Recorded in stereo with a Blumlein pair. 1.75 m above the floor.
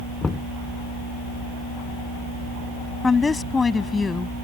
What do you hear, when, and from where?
0.2 s knocking: 15° left
3.0 s a woman speaking: 15° left